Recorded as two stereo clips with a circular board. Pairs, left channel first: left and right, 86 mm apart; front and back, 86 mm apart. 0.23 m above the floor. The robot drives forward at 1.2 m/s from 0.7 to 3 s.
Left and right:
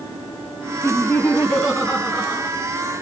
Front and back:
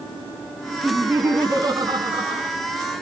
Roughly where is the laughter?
Behind left.